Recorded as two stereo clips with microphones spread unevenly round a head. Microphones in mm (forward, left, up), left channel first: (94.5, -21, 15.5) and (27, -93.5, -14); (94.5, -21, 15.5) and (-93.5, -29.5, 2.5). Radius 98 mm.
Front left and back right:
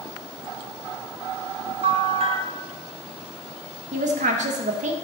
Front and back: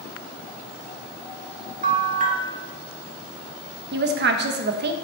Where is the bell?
125° right, 1.2 m.